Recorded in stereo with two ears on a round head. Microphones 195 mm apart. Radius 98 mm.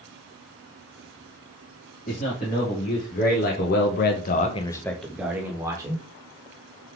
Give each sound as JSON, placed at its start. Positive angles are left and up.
{"t": 2.1, "sound": "a man speaking", "side_deg": 40, "distance_m": 1.7}